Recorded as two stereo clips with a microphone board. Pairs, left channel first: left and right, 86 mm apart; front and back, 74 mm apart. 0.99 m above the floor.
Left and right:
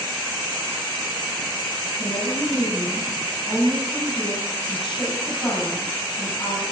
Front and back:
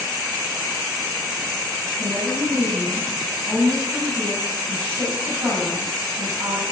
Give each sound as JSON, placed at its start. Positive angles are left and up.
{"t": 2.0, "sound": "a woman speaking", "azimuth_deg": 120, "distance_m": 5.5}